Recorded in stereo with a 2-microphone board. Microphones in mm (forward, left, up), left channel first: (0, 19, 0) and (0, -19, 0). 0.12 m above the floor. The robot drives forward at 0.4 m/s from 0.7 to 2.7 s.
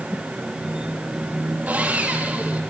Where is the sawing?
50° right (ahead or behind), 2.5 m; by 2.6 s 45° right (ahead or behind), 2.5 m.